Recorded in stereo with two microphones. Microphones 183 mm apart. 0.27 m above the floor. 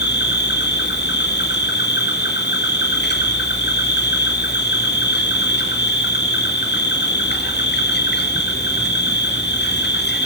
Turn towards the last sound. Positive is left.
turn(degrees=65)  # may be behind; listen again after turning